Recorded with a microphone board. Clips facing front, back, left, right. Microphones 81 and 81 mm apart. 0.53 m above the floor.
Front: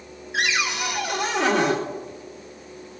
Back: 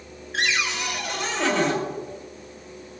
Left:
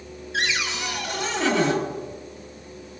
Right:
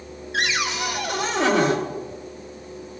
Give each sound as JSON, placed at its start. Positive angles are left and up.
{"t": 0.3, "sound": "a cupboard door", "azimuth_deg": -80, "distance_m": 3.0}